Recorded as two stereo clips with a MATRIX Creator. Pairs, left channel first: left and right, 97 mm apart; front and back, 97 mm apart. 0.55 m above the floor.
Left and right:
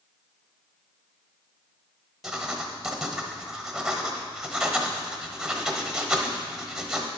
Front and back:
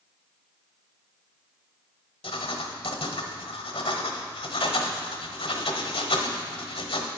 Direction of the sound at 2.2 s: Straight ahead.